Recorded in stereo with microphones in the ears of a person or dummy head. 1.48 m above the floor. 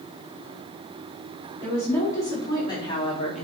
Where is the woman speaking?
10° left (ahead or behind), 4 m; by 3.5 s 35° left (ahead or behind), 1.8 m.